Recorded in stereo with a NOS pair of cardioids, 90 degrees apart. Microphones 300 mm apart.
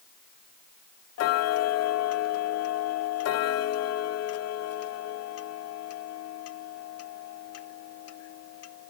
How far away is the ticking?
About 0.7 m.